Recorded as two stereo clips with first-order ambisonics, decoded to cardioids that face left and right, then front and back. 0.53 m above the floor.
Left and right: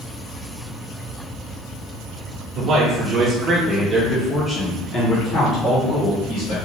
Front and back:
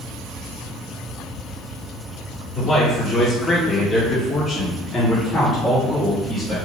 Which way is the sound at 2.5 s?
65° right.